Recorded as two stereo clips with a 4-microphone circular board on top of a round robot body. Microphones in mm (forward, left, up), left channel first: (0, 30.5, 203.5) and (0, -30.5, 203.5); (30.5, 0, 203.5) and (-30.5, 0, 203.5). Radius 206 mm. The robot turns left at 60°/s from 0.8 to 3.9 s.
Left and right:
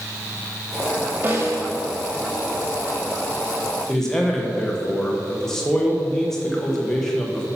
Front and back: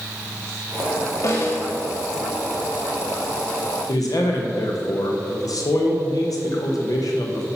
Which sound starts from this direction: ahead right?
A snare drum, at 1.2 s.